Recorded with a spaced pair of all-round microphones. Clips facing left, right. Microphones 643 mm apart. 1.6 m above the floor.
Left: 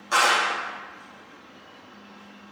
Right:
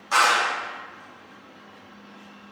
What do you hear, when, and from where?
0.1 s a clap: 30° right (ahead or behind), 1.3 m